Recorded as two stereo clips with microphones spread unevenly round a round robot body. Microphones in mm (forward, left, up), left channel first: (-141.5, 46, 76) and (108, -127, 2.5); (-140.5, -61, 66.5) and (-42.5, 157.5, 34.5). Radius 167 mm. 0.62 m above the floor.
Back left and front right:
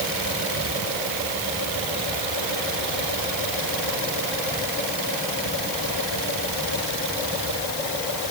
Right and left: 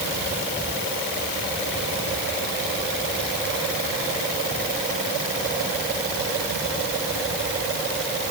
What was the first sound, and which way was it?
Only background noise.